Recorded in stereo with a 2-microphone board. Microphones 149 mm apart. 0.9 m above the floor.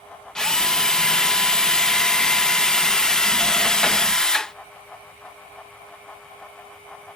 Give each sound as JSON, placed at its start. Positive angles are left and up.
{"t": 0.3, "sound": "a drill", "side_deg": 5}